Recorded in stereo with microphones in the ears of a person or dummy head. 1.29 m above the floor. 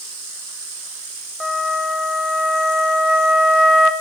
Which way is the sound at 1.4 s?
Centre (ahead or behind).